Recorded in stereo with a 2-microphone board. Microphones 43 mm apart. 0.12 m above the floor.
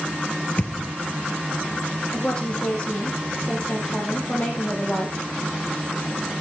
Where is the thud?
35° left (ahead or behind), 1.3 m.